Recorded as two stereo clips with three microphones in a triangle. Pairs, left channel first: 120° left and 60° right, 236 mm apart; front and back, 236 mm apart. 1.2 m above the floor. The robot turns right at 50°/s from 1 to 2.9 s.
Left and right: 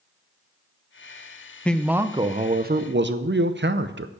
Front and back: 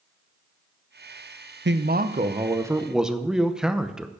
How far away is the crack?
I don't hear a crack.